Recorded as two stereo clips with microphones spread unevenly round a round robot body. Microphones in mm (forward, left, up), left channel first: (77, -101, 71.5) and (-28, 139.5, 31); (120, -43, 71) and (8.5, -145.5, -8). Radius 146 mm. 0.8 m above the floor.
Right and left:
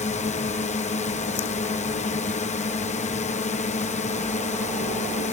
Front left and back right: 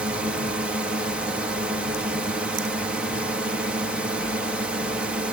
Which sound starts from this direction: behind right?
A drone, at 0.0 s.